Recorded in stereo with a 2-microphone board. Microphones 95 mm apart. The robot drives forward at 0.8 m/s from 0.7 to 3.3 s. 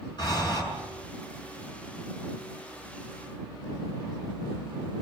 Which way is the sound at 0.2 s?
50° left (ahead or behind).